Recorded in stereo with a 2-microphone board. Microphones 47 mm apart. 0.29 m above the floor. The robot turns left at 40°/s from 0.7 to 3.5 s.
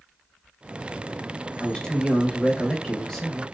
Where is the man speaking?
20° left (ahead or behind), 0.9 m; by 3.4 s 5° left (ahead or behind), 0.9 m.